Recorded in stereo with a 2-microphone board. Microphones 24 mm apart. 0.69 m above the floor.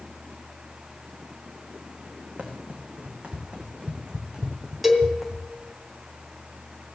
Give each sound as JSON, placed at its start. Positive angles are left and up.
{"t": 2.4, "sound": "running footsteps", "side_deg": -65, "distance_m": 3.0}
{"t": 4.8, "sound": "a cowbell", "side_deg": -5, "distance_m": 2.5}